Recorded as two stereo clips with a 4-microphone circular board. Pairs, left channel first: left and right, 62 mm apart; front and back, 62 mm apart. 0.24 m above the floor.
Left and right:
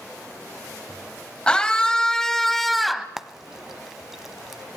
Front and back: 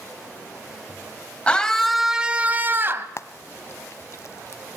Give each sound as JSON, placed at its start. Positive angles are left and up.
{"t": 1.5, "sound": "a scream", "azimuth_deg": 40, "distance_m": 1.2}
{"t": 3.2, "sound": "frying", "azimuth_deg": -10, "distance_m": 0.7}